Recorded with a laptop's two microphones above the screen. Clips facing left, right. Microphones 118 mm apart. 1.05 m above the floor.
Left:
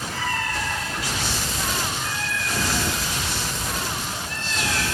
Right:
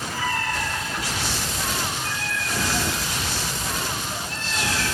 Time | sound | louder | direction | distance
0.1 | a cat meowing | right 2 dB | 45° right (ahead or behind) | 5.5 m